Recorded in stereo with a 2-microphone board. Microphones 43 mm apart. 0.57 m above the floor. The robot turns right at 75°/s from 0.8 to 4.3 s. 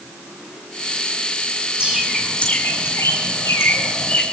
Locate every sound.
1.8 s a bird: 25° right (ahead or behind), 6 m; by 4.2 s 20° left (ahead or behind), 6 m